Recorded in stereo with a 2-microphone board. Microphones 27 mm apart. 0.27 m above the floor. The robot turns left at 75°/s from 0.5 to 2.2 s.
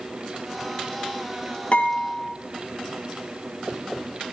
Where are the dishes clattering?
55° left, 4 m; by 2.3 s 15° left, 4 m.